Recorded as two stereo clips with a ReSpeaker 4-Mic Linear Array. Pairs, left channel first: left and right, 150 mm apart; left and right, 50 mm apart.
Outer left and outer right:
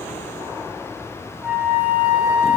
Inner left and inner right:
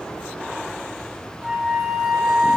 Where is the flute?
10° right (ahead or behind), 1.0 m.